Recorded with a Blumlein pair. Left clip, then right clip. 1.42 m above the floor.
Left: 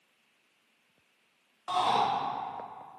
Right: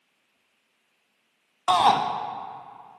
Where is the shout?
35° right, 0.8 m.